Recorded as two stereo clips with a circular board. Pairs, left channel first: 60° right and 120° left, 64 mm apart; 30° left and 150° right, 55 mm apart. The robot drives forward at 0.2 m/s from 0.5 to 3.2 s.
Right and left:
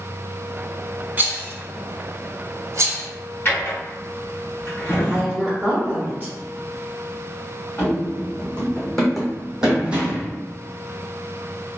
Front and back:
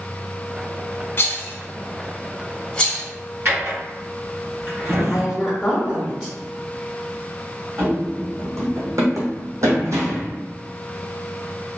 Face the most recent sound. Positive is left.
turn(degrees=180)